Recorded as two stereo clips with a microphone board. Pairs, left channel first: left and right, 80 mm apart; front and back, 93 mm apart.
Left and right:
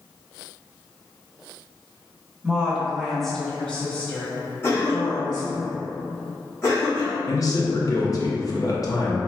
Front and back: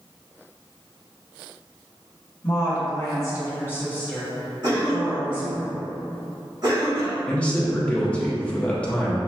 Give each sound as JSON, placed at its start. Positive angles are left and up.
{"t": 2.4, "sound": "a woman speaking", "azimuth_deg": -15, "distance_m": 1.2}
{"t": 4.6, "sound": "a cough", "azimuth_deg": 150, "distance_m": 1.1}
{"t": 7.3, "sound": "a man speaking", "azimuth_deg": 75, "distance_m": 0.8}